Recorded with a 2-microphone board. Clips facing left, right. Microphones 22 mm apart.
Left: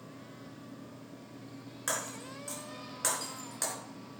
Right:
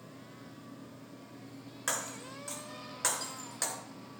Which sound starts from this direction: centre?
Breaking glass, at 1.9 s.